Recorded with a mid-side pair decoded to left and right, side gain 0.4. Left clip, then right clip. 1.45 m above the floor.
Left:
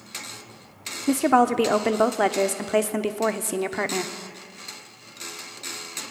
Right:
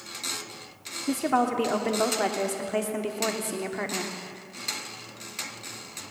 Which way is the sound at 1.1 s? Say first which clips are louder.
Left 6 dB; 55° left.